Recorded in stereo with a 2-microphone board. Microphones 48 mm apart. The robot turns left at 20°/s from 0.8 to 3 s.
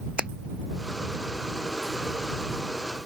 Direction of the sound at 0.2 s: 25° right (ahead or behind).